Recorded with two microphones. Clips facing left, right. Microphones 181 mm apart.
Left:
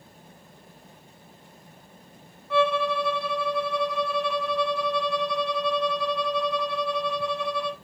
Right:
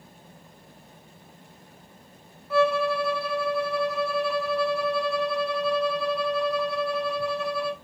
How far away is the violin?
About 1.4 m.